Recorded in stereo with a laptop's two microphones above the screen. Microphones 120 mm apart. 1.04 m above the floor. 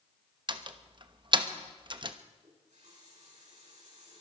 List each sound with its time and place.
0.5 s a door slam: 40° right (ahead or behind), 1.0 m
2.4 s a running tap: 80° right, 8 m